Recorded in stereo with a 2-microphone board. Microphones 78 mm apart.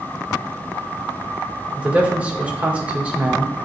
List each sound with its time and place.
1.8 s a man speaking: 20° right (ahead or behind), 1.8 m